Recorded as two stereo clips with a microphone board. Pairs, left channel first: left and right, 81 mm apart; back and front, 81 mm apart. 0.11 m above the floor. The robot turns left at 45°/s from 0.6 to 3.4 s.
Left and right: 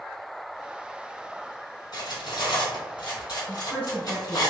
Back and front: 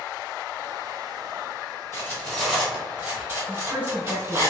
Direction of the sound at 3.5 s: 40° left.